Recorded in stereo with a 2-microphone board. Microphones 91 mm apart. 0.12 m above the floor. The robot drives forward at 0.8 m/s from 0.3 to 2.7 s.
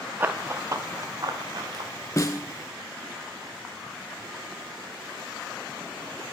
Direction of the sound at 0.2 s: 20° right (ahead or behind).